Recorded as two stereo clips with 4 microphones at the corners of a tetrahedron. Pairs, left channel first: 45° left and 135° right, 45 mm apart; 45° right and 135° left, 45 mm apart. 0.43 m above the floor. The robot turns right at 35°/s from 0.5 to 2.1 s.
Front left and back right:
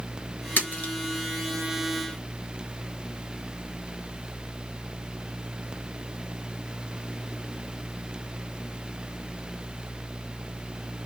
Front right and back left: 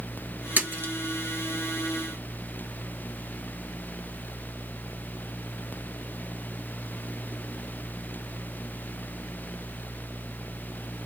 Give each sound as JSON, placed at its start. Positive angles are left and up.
{"t": 0.6, "sound": "a splash", "azimuth_deg": 85, "distance_m": 1.4}